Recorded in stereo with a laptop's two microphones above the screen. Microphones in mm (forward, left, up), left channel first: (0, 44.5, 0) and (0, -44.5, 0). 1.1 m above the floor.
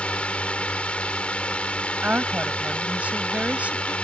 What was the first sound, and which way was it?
A drone, 15° left (ahead or behind).